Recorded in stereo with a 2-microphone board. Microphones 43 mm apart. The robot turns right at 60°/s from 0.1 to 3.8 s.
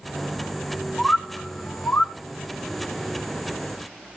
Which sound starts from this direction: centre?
A bird, at 1.0 s.